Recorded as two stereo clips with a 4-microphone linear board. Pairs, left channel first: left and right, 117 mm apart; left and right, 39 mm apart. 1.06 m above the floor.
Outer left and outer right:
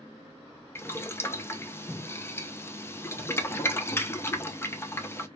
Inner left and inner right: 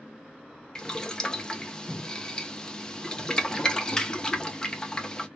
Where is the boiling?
20° left (ahead or behind), 0.6 m.